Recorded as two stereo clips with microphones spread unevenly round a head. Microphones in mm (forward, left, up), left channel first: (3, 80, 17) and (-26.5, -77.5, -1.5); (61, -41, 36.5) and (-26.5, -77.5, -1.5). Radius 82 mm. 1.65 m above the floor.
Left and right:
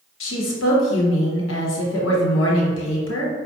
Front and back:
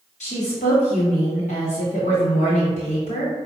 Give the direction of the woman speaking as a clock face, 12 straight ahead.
10 o'clock.